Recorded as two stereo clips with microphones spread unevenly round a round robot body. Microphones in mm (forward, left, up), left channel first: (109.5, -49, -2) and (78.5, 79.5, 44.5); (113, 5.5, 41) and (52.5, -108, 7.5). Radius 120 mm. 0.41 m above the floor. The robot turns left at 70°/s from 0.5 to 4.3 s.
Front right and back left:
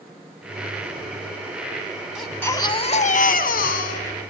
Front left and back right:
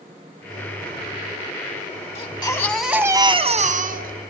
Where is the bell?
No bell in this recording.